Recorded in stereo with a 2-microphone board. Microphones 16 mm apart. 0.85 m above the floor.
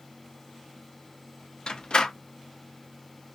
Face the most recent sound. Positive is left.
turn(degrees=60)  # may be behind; listen again after turning